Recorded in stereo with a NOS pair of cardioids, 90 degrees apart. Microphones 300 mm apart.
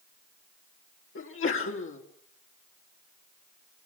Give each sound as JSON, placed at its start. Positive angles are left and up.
{"t": 1.1, "sound": "a sneeze", "azimuth_deg": 40, "distance_m": 3.0}